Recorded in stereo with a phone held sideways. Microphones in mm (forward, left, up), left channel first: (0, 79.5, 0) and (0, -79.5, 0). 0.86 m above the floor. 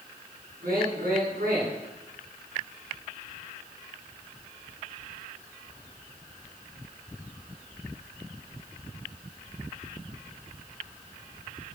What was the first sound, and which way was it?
A man speaking, 70° right (ahead or behind).